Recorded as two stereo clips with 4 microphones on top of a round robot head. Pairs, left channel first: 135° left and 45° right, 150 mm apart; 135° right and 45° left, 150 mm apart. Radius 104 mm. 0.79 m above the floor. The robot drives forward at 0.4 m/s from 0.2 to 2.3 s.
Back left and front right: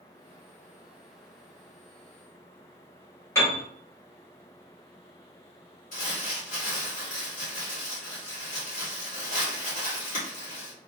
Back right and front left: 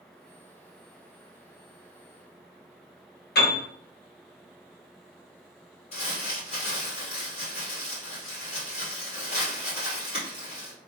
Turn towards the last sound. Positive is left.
turn(degrees=175)